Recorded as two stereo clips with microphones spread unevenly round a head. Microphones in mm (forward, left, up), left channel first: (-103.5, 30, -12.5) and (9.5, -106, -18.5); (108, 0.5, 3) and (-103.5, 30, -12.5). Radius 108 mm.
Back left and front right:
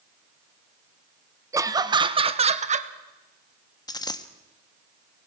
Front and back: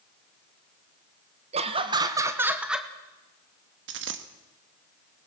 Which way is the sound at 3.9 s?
170° right.